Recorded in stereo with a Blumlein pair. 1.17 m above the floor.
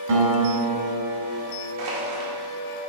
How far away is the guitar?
About 2.5 m.